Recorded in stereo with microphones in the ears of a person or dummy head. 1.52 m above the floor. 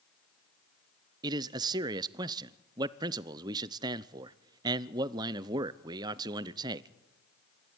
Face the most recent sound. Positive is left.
turn(degrees=-20)  # may be behind; listen again after turning